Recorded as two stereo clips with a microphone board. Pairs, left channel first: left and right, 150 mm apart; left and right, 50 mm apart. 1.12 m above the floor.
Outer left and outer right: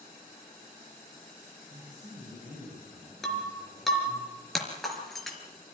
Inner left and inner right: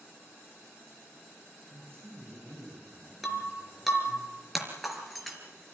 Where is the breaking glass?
Centre (ahead or behind), 4 m.